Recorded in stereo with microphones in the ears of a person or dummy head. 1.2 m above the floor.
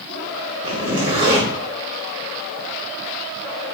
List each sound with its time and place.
0.6 s a zipper: 35° right (ahead or behind), 0.9 m